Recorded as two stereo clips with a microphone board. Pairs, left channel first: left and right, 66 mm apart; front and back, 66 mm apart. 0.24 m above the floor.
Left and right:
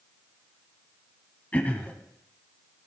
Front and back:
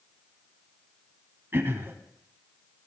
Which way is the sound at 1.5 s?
145° left.